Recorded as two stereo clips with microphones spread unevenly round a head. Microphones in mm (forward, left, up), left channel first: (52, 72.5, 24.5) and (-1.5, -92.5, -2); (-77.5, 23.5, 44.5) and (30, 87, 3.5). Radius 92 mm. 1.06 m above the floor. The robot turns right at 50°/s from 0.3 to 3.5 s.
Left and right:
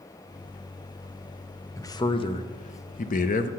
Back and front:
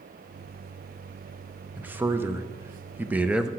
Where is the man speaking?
5° right, 0.6 m; by 3.5 s 85° left, 0.6 m.